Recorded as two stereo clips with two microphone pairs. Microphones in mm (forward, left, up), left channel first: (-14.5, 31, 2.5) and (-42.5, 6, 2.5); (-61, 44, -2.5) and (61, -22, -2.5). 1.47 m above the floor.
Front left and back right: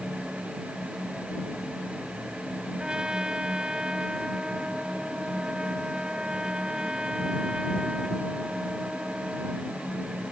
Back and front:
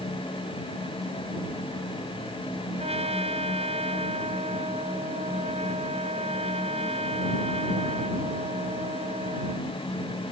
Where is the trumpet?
70° right.